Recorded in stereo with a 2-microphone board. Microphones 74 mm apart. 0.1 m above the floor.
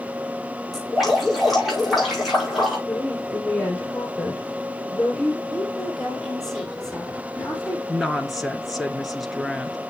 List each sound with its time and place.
0.7 s dripping: 5° right (ahead or behind), 6 m
2.9 s a woman speaking: 10° left (ahead or behind), 2.5 m
5.5 s a woman speaking: 5° left (ahead or behind), 4 m
7.9 s a woman speaking: 5° right (ahead or behind), 1.2 m